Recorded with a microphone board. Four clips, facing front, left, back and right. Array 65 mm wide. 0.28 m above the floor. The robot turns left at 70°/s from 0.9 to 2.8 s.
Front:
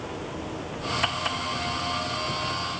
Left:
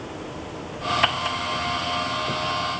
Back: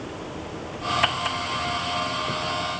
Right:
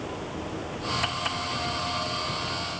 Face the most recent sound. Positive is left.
No sound to turn to.